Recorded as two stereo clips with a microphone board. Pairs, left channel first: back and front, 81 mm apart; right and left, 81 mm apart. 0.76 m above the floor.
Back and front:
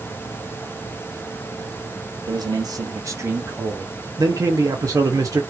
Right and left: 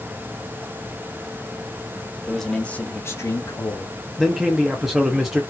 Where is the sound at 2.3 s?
Straight ahead, 1.5 m; by 3.9 s 70° right, 1.8 m.